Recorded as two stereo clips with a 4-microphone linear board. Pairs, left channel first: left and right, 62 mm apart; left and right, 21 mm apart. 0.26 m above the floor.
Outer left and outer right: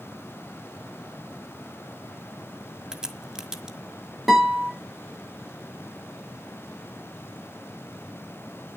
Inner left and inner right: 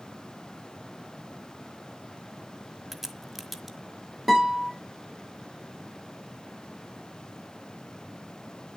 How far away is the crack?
About 1.4 m.